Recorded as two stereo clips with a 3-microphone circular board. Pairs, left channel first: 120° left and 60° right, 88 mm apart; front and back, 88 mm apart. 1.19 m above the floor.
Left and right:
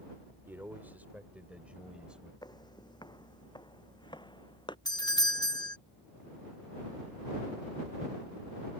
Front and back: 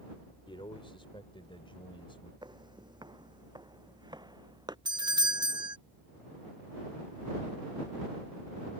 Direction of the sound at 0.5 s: 5° left.